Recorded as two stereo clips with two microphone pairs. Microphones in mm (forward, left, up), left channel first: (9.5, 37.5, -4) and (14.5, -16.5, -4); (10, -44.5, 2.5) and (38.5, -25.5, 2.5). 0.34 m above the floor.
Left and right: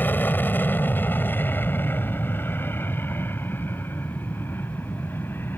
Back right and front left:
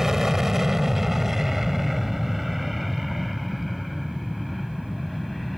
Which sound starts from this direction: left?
An aircraft, at 0.0 s.